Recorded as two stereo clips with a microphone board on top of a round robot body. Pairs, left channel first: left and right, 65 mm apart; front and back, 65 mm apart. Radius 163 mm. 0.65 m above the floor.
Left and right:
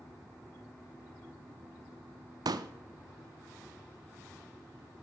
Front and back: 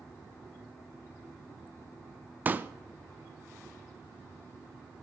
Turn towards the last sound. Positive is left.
turn(degrees=-115)